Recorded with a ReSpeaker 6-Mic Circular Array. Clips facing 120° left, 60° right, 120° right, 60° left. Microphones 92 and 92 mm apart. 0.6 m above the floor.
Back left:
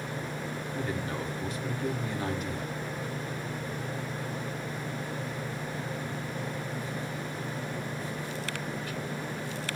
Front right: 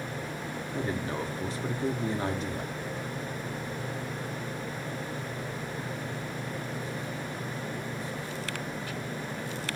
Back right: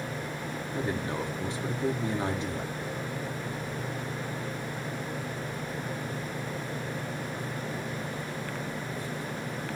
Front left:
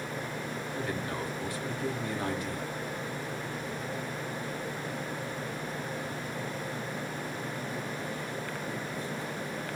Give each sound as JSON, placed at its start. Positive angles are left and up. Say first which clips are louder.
{"t": 0.7, "sound": "a man speaking", "louder": "front right 3 dB, back right 4 dB", "azimuth_deg": -75, "distance_m": 0.6}